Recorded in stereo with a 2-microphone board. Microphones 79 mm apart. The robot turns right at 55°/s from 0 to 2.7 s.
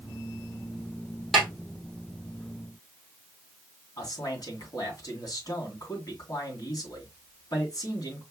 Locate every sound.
1.3 s a snare drum: centre (ahead or behind), 2.5 m; by 1.5 s 10° left (ahead or behind), 2.5 m
4.0 s a man speaking: 55° left (ahead or behind), 2.5 m